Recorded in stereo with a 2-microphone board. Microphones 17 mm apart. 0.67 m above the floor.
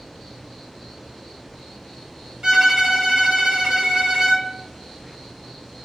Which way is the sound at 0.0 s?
5° left (ahead or behind).